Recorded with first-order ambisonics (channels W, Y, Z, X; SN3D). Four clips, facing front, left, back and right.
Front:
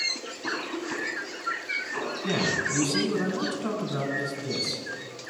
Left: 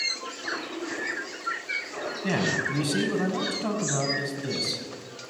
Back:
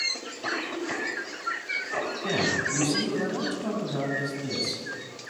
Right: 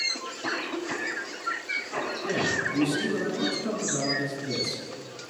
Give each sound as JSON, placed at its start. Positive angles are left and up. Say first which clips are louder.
{"t": 0.1, "sound": "a cough", "louder": "right 1 dB, back 1 dB", "azimuth_deg": -160, "distance_m": 5.5}
{"t": 2.2, "sound": "a man speaking", "louder": "left 2 dB, even", "azimuth_deg": 110, "distance_m": 7.0}